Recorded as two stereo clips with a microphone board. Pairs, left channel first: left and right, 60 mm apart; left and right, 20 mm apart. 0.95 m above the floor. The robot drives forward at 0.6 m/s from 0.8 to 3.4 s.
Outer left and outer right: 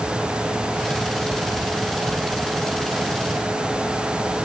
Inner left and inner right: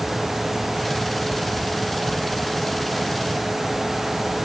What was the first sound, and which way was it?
Only background noise.